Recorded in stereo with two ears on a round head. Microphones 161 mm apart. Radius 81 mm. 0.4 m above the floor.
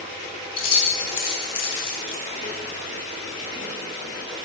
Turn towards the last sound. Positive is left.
turn(degrees=35)  # may be behind; listen again after turning